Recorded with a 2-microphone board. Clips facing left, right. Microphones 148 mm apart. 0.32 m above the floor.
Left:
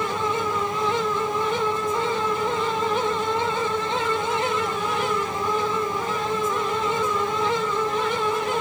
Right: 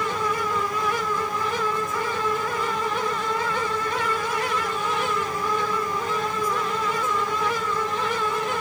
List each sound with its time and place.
Only background noise.